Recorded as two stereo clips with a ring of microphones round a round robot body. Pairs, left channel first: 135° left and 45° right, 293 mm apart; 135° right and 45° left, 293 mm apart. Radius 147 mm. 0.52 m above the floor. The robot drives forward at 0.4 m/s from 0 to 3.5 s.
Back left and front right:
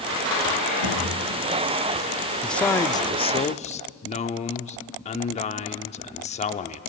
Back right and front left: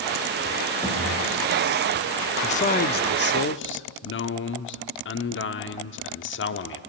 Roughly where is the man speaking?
Behind right.